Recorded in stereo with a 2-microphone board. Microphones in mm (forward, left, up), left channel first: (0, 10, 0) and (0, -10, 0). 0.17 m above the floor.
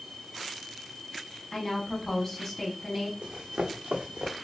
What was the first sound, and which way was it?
A woman speaking, 15° left (ahead or behind).